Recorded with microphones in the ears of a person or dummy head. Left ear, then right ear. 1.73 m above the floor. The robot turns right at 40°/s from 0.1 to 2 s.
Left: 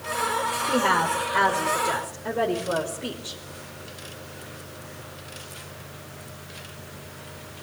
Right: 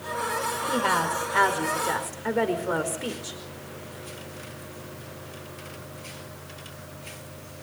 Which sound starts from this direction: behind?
A woman speaking, at 0.7 s.